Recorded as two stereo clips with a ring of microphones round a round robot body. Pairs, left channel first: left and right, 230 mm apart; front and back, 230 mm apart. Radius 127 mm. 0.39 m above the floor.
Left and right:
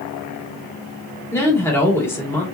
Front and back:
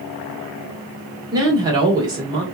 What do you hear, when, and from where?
1.3 s a woman speaking: 145° left, 1.4 m